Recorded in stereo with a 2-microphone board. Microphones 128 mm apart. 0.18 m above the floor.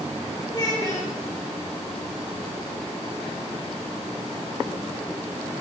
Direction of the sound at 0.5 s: 35° left (ahead or behind).